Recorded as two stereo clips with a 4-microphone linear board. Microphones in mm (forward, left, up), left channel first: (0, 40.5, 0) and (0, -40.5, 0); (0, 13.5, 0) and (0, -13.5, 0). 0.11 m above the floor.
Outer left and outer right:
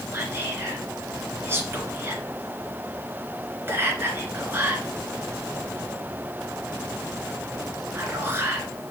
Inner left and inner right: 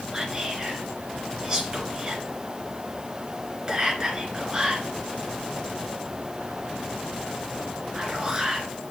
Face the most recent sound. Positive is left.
turn(degrees=-25)  # may be behind; listen again after turning